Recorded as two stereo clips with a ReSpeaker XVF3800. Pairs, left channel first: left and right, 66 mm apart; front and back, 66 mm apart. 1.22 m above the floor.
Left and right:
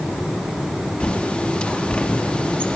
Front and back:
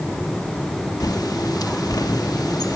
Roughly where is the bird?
Ahead.